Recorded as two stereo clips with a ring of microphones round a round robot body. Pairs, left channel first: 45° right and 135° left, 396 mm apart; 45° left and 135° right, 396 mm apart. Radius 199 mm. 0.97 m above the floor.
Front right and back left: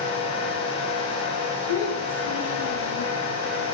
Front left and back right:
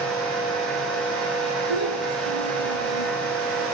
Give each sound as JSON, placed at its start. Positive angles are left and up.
{"t": 1.7, "sound": "a child speaking", "azimuth_deg": 10, "distance_m": 8.0}